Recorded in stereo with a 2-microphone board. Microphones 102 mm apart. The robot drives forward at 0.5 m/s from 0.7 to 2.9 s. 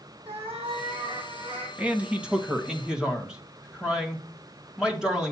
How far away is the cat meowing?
About 4.5 m.